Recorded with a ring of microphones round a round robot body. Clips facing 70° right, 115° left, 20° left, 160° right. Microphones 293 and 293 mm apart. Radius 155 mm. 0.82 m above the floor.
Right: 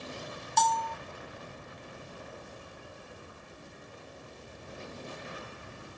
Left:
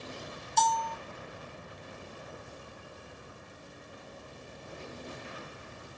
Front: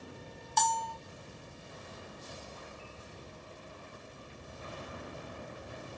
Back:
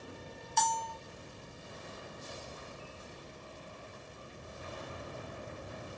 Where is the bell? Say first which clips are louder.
Even, front 2 dB; 30° right, 0.7 m.